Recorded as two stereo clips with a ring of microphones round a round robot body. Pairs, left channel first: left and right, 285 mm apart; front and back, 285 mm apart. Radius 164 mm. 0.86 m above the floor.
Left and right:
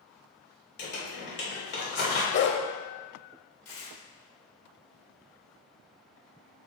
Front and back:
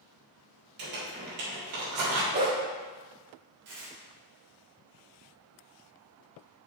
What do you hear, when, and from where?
0.8 s crumpling: 140° left, 3 m
2.3 s a dog barking: 125° left, 0.8 m
3.6 s tearing paper: 130° left, 2 m